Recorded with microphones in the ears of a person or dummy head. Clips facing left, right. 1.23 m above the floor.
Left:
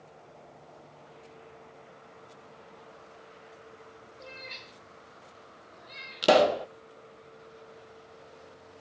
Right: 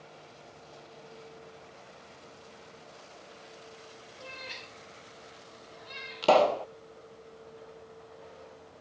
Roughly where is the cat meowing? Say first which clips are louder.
Right 1 dB; right.